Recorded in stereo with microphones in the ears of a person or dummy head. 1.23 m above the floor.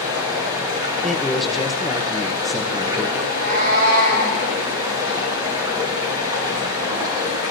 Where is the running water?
25° right (ahead or behind), 3.5 m.